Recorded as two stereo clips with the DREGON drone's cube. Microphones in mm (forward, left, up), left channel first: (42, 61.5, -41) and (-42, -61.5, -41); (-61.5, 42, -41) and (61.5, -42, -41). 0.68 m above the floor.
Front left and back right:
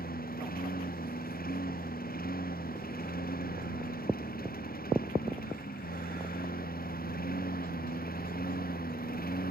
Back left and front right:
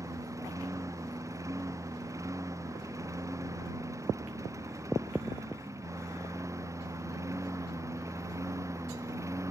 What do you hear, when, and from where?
0.0 s a lawn mower: 35° left